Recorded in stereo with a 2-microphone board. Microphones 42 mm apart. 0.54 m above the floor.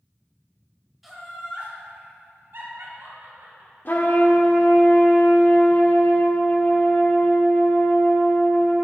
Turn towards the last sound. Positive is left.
turn(degrees=45)  # may be behind; listen again after turning